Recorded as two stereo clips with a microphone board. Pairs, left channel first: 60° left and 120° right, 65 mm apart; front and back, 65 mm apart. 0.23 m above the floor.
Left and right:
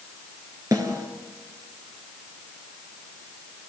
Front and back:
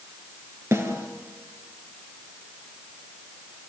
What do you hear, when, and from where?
0.7 s a snare drum: 145° right, 3.5 m